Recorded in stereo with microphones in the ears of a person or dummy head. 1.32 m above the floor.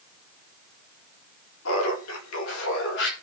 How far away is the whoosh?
No whoosh in this recording.